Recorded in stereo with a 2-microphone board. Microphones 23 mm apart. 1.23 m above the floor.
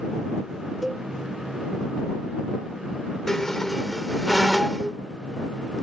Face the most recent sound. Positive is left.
turn(degrees=20)  # may be behind; listen again after turning